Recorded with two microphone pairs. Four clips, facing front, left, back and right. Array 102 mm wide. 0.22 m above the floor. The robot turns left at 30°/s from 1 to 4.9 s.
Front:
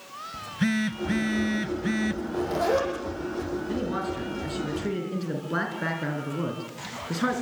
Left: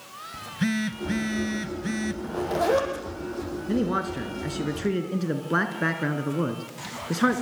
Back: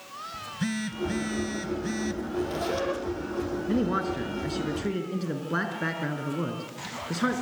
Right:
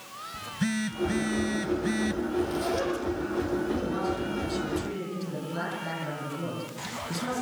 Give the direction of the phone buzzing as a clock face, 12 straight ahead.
11 o'clock.